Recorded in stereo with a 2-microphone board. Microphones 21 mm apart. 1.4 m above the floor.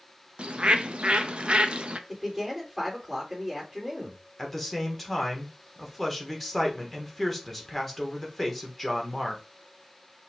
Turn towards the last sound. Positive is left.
turn(degrees=0)  # may be behind; listen again after turning